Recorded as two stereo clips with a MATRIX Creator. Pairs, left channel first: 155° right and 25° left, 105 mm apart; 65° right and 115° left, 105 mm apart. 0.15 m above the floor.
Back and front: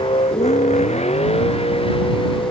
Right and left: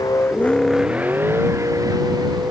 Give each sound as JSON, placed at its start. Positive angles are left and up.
{"t": 0.0, "sound": "a vehicle", "azimuth_deg": -120}